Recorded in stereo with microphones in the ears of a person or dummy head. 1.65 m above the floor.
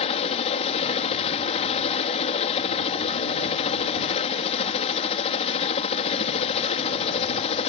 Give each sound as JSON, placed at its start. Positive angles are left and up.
{"t": 0.0, "sound": "a helicopter", "side_deg": 30}